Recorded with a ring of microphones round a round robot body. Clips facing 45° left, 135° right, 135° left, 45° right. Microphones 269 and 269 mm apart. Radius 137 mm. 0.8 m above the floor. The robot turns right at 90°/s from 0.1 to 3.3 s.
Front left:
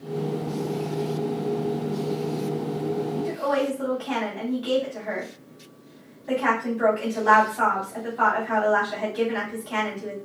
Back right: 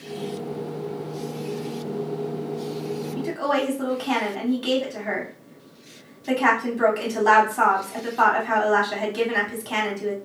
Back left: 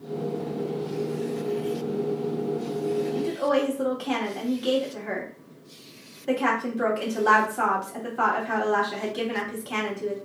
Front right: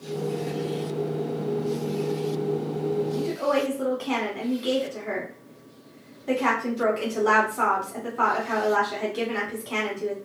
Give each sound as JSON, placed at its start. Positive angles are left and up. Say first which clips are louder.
{"t": 3.2, "sound": "a woman speaking", "louder": "even, back left 1 dB", "azimuth_deg": -170, "distance_m": 2.0}